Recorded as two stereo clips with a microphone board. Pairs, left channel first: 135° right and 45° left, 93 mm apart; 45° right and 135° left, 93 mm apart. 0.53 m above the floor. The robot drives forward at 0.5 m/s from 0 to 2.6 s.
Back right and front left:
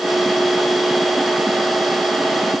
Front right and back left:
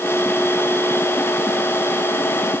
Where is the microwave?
I don't hear a microwave.